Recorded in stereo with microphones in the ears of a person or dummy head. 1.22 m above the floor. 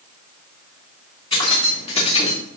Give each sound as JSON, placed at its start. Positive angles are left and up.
{"t": 1.3, "sound": "keys jangling", "side_deg": 40, "distance_m": 2.5}